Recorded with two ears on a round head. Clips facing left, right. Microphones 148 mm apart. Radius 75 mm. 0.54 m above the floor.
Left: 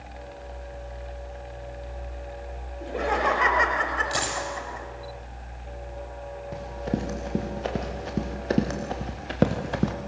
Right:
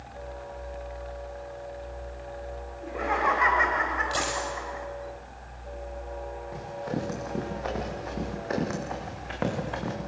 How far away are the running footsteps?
About 6 m.